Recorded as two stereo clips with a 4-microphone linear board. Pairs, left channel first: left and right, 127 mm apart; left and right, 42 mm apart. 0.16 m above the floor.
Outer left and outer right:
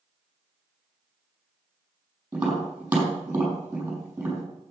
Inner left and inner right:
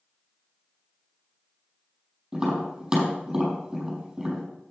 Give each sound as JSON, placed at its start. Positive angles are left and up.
{"t": 2.3, "sound": "tapping", "side_deg": -10, "distance_m": 5.0}